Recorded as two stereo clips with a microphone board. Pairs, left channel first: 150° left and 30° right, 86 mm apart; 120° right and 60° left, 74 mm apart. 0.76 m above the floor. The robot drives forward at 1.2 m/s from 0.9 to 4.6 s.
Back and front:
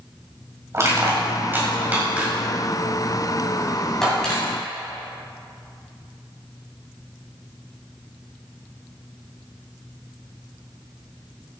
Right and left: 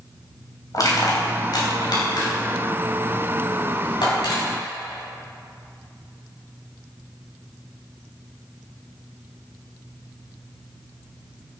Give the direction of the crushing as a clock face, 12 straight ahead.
3 o'clock.